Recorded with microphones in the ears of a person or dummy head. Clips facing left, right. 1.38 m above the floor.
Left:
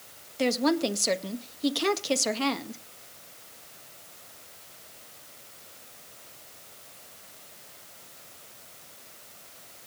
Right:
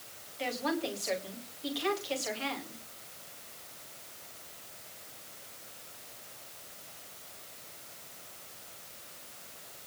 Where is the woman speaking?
65° left (ahead or behind), 1.9 m.